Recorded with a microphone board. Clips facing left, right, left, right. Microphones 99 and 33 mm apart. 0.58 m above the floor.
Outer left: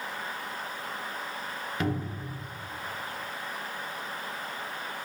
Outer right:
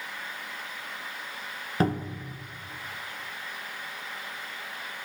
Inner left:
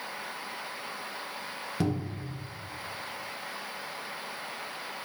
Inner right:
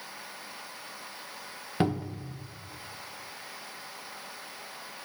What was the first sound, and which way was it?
A cupboard door, 35° right (ahead or behind).